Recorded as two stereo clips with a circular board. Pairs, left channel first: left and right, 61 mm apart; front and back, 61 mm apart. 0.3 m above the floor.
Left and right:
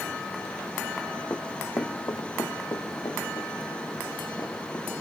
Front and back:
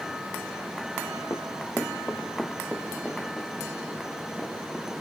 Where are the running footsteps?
45° left, 1.0 m; by 5.0 s 90° left, 6.5 m.